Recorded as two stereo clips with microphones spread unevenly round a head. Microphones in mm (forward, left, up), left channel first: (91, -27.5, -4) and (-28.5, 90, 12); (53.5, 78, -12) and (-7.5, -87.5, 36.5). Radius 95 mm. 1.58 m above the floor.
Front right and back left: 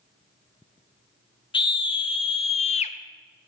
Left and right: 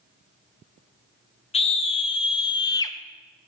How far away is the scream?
About 1.4 m.